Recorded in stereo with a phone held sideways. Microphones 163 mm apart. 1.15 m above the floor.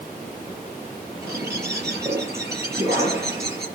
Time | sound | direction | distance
1.2 | a bird | 15° right (ahead or behind) | 5 m